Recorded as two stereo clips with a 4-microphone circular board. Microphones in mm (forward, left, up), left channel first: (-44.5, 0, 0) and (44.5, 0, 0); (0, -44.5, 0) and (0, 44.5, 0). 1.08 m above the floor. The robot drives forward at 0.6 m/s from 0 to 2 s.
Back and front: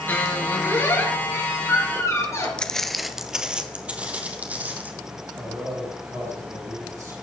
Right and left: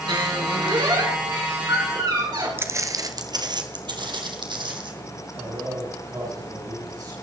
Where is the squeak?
115° left, 4.5 m; by 2.5 s 125° left, 5 m.